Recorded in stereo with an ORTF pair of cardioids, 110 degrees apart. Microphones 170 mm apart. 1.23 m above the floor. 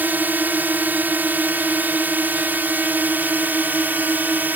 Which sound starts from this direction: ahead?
A drone, at 0.0 s.